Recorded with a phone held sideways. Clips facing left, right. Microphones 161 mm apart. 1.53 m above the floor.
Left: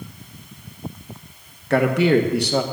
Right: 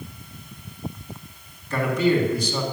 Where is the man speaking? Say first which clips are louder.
Left 4 dB; 70° left (ahead or behind), 1.3 m.